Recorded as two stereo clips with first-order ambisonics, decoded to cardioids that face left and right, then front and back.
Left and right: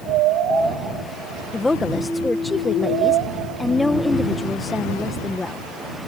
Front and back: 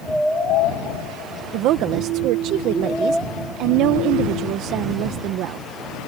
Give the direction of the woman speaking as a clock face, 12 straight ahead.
6 o'clock.